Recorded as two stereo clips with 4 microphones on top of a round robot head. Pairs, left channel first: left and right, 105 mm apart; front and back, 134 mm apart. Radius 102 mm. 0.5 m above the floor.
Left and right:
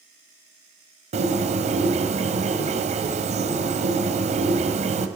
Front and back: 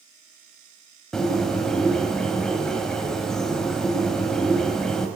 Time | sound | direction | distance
1.1 | a bird | 85° right | 1.4 m